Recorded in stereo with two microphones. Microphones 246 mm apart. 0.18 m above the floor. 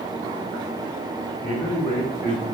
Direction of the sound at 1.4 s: 25° left (ahead or behind).